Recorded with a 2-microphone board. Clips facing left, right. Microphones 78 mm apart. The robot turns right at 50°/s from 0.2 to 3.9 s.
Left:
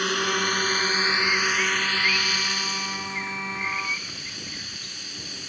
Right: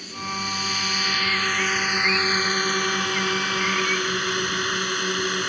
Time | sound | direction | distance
0.0 | a drone | 105° left | ?